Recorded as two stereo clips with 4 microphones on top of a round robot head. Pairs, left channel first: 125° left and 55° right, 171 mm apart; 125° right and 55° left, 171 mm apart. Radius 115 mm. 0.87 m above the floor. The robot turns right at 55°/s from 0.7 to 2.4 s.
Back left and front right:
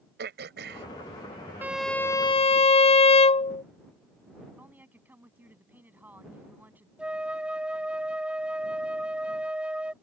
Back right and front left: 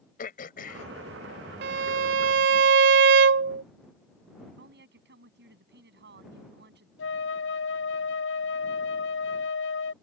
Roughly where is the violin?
Ahead left.